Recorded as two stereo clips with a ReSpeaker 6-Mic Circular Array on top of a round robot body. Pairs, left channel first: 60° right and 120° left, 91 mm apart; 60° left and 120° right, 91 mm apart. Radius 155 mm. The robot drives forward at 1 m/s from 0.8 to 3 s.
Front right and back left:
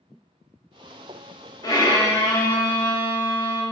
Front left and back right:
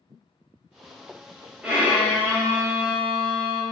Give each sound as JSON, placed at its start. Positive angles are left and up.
{"t": 1.6, "sound": "a violin", "azimuth_deg": -45, "distance_m": 1.7}